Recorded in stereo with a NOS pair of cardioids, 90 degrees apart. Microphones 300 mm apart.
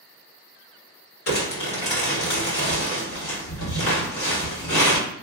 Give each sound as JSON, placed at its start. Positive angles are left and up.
{"t": 1.3, "sound": "crumpling", "azimuth_deg": 45, "distance_m": 1.5}